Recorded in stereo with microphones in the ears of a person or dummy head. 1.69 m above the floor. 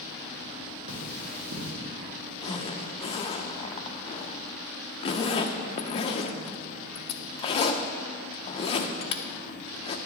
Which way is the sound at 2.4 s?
35° left (ahead or behind).